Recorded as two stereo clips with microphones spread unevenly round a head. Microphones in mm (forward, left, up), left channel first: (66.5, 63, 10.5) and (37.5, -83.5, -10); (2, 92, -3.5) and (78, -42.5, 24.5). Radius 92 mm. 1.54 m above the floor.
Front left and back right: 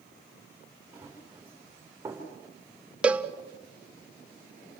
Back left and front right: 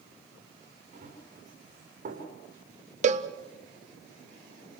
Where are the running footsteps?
25° right, 10 m.